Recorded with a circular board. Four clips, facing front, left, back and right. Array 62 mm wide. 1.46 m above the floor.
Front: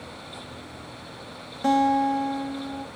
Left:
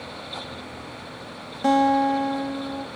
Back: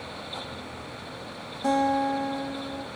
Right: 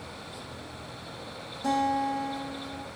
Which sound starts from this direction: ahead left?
A guitar, at 1.6 s.